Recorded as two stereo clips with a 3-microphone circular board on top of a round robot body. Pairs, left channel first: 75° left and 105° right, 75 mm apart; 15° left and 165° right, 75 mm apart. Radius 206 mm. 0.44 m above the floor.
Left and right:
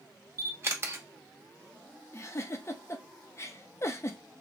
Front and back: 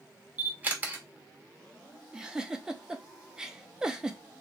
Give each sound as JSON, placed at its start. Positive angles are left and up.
{"t": 0.4, "sound": "a camera shutter", "azimuth_deg": -115, "distance_m": 1.1}
{"t": 2.1, "sound": "a giggle", "azimuth_deg": 115, "distance_m": 0.6}